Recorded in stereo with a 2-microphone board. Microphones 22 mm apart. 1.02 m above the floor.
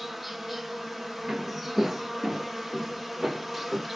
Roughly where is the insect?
Centre.